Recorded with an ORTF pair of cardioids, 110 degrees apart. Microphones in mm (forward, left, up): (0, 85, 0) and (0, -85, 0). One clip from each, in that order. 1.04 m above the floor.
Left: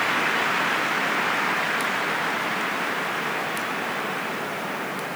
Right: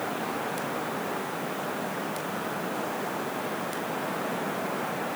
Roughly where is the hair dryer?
I don't hear a hair dryer.